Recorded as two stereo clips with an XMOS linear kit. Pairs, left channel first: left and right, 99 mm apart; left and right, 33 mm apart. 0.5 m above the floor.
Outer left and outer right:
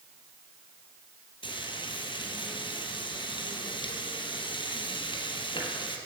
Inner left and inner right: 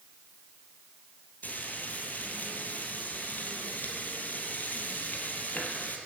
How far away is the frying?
About 3.5 m.